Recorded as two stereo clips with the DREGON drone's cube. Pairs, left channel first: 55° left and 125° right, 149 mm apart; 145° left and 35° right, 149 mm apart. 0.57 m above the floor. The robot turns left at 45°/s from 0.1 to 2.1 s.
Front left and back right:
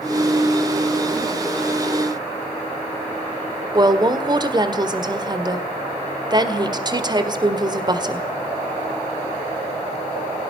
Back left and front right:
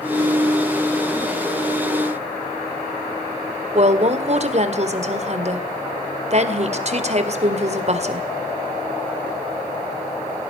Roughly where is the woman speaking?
Ahead right.